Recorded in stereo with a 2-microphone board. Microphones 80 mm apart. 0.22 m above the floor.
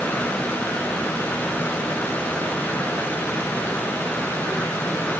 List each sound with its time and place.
Only background noise.